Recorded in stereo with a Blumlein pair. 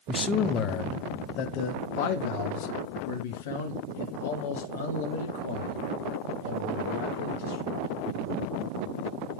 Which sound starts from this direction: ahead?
A man speaking, at 0.1 s.